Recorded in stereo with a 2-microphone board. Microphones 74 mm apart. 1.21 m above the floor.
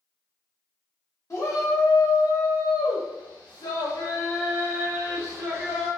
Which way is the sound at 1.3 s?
45° left (ahead or behind).